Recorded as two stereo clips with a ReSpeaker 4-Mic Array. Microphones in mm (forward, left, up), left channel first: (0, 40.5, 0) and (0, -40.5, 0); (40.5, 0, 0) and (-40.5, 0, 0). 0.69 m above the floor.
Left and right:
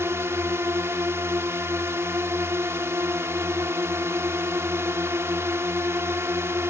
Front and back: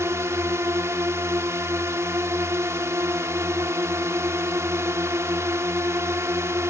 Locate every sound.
0.0 s a drone: 135° right